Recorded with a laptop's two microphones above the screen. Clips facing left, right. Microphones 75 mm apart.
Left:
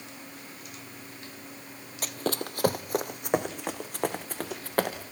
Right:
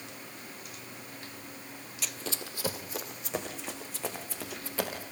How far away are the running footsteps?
About 1.3 m.